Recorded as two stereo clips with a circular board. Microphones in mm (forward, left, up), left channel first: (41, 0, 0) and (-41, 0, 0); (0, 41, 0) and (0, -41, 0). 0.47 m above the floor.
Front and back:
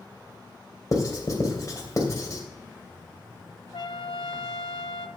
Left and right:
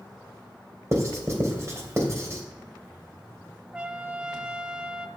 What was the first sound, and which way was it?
Writing, 40° right.